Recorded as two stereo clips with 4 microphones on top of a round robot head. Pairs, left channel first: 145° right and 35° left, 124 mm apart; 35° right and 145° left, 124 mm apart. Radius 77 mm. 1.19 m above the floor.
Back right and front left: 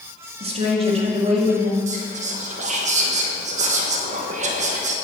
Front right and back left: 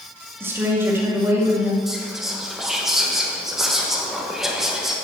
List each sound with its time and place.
0.4 s a woman speaking: 75° left, 2.0 m
1.9 s whispering: 60° left, 1.3 m